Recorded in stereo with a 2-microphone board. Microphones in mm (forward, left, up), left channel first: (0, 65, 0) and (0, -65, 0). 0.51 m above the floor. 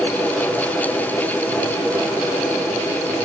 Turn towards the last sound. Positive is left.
No sound to turn to.